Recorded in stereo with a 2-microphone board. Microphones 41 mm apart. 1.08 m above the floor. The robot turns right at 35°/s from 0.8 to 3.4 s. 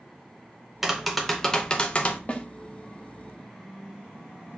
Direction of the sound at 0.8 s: 10° right.